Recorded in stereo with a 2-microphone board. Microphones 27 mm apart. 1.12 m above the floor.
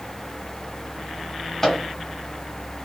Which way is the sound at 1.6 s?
15° left (ahead or behind).